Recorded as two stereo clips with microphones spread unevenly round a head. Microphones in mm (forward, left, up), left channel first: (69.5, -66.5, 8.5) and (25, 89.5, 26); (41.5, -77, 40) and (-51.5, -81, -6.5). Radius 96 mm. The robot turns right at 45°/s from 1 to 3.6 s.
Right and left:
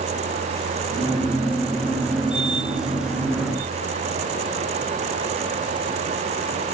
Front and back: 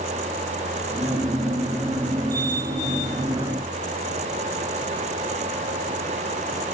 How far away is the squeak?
I don't hear a squeak.